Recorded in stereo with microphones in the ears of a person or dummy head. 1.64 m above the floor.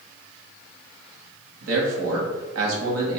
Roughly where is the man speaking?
Right.